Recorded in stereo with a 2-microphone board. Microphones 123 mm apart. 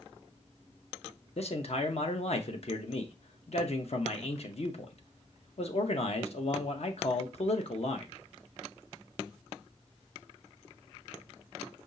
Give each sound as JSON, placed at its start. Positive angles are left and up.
{"t": 1.4, "sound": "a man speaking", "side_deg": 55, "distance_m": 0.8}